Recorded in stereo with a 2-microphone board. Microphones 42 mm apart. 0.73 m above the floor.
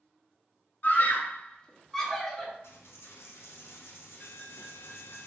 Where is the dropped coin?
75° left (ahead or behind), 0.7 m.